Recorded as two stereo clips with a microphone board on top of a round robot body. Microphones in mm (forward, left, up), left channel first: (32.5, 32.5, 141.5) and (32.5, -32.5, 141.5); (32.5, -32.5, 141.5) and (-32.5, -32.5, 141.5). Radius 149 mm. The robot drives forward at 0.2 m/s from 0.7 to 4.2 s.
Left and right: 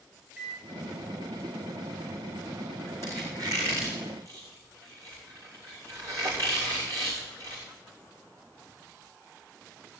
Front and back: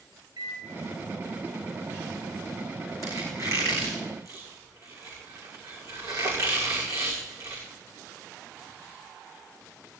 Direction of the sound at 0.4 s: 170° right.